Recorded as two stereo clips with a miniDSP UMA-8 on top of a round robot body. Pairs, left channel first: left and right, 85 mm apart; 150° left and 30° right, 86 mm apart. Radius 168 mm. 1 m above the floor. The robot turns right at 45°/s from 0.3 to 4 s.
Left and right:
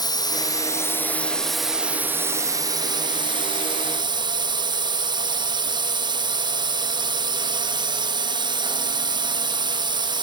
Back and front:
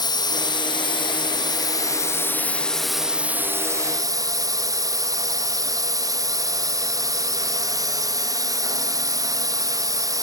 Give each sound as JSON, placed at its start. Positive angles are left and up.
{"t": 0.0, "sound": "a drone", "azimuth_deg": 125}